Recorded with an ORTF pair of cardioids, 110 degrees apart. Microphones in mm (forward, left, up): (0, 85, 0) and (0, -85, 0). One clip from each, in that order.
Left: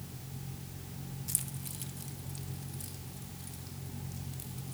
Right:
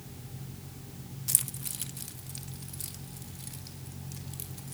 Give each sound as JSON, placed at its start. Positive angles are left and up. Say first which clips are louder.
{"t": 1.3, "sound": "keys jangling", "louder": "right 8 dB", "azimuth_deg": -45, "distance_m": 0.9}